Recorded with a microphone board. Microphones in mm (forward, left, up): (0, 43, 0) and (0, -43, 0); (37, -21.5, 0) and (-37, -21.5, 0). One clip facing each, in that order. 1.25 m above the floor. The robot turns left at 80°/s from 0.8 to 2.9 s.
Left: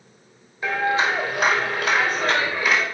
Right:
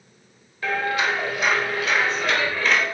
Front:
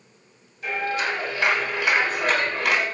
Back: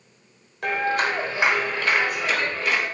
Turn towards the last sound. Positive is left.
turn(degrees=-10)